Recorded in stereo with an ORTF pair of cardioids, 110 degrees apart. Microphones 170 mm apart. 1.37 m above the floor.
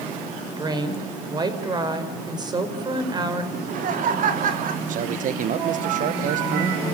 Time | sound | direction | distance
0.6 | a woman speaking | 25° right | 4.5 m
3.5 | laughter | 55° right | 3.5 m
4.9 | a man speaking | 55° right | 1.2 m